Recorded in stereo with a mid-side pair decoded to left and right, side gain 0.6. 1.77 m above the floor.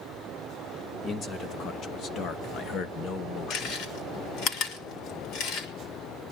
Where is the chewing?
65° left, 6 m.